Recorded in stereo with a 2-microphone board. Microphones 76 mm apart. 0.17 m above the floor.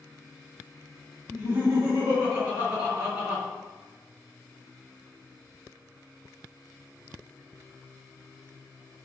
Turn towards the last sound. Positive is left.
turn(degrees=-20)  # may be behind; listen again after turning